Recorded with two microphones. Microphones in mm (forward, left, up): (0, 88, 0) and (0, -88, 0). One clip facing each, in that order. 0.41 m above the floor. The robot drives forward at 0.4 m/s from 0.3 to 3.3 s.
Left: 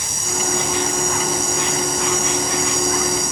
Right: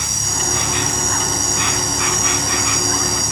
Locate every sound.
0.0 s an insect: 70° right (ahead or behind)